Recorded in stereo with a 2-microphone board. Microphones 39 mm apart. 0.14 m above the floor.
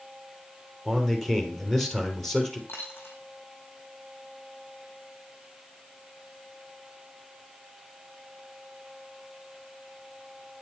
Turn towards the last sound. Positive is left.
turn(degrees=80)